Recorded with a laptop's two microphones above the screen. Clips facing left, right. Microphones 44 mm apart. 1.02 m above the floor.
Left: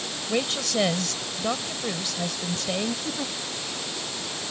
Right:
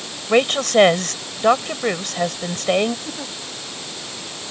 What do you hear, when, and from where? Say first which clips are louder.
0.3 s a woman speaking: right 11 dB; 55° right (ahead or behind)
3.0 s a giggle: even; 5° right (ahead or behind)